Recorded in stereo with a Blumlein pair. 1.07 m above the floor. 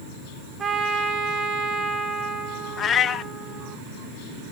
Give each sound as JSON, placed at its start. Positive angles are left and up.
{"t": 0.6, "sound": "a trumpet", "azimuth_deg": -25, "distance_m": 2.5}
{"t": 2.8, "sound": "a cat meowing", "azimuth_deg": 25, "distance_m": 0.6}